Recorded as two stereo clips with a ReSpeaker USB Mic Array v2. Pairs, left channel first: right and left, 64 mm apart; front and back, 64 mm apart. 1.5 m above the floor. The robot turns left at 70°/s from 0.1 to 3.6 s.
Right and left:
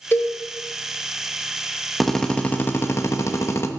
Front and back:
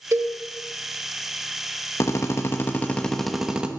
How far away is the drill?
About 1.0 m.